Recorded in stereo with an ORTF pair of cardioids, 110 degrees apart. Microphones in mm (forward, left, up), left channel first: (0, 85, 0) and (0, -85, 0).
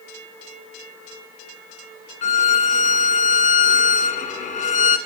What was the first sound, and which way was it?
A violin, 45° left.